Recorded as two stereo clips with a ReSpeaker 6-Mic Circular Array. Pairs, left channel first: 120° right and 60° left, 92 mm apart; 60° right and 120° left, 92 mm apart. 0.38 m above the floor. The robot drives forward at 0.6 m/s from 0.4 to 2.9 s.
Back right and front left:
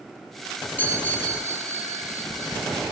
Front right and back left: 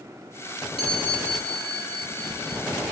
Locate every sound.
0.8 s a chime: 45° right, 3 m; by 2.7 s 65° right, 2.5 m